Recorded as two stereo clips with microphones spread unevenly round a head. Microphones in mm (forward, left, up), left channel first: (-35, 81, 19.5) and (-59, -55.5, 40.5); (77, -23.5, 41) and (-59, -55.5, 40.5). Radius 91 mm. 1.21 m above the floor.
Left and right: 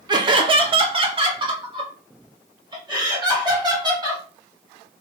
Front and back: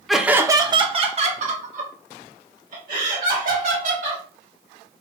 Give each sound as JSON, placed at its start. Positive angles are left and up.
{"t": 0.1, "sound": "laughter", "azimuth_deg": -75, "distance_m": 0.6}